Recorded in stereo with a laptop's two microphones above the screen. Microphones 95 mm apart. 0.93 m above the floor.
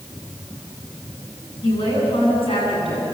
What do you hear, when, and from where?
1.6 s a woman speaking: 80° left, 9 m